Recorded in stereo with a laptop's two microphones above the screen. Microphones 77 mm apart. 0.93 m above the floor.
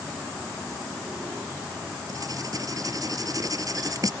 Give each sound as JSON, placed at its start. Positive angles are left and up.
{"t": 2.1, "sound": "writing", "side_deg": -50}